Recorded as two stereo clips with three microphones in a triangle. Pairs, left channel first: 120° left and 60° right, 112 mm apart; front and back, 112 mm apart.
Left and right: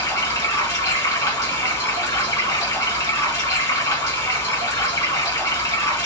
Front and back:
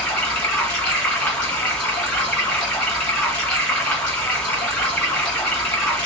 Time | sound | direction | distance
0.0 | running water | 80° left | 1.7 m